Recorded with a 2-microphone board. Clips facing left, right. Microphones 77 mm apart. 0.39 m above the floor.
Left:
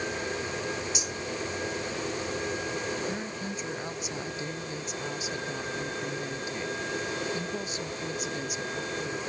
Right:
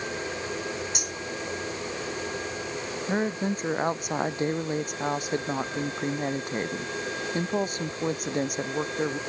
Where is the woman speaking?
50° right (ahead or behind).